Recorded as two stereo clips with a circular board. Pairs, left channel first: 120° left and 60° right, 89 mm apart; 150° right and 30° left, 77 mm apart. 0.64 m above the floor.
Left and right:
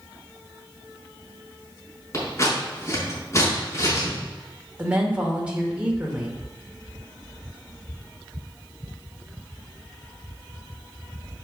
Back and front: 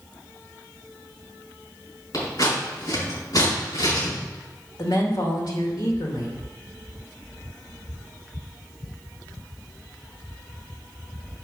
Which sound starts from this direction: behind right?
A woman speaking, at 4.8 s.